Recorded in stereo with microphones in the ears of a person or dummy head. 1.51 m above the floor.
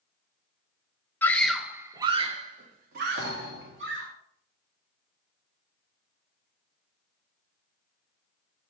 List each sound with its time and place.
1.2 s a scream: 15° left (ahead or behind), 0.8 m; by 4.1 s 70° right (ahead or behind), 1.7 m
3.2 s a thud: 65° right (ahead or behind), 1.8 m